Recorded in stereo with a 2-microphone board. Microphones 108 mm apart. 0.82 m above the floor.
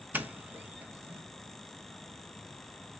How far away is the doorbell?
About 0.8 m.